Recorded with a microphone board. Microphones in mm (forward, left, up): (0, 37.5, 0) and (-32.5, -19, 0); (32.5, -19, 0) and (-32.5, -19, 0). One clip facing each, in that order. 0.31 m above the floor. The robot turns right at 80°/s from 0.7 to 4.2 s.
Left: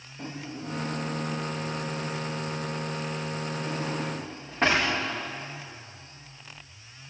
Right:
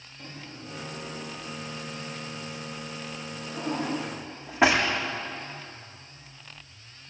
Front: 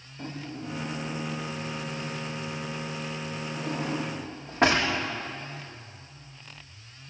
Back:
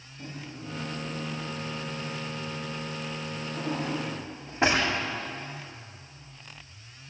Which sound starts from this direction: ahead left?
A drawer, at 0.2 s.